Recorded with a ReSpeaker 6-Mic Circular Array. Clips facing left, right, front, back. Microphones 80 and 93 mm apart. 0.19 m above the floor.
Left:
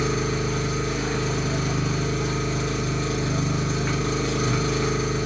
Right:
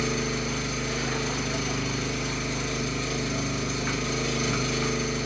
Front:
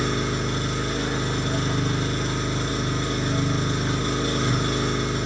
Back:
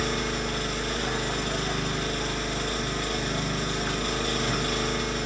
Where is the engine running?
55° left, 1.8 m.